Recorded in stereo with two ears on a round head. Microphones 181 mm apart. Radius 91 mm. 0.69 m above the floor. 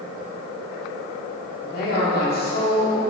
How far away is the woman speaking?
About 1.8 m.